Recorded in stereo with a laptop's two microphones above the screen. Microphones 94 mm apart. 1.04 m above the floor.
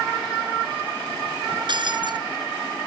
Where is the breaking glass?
55° right (ahead or behind).